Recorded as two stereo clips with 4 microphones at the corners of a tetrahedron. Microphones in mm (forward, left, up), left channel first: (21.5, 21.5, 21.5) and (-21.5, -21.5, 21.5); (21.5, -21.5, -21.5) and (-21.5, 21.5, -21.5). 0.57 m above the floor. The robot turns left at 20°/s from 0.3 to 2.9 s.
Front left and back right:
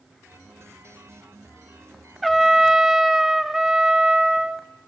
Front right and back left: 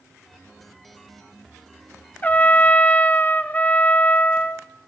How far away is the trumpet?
About 0.6 m.